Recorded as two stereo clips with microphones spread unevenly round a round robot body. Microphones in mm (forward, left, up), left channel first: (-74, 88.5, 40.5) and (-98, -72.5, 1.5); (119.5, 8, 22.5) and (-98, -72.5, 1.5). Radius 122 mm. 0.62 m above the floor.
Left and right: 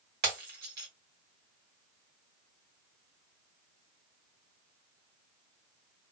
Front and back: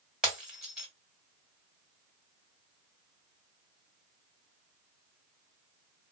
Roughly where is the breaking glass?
Right.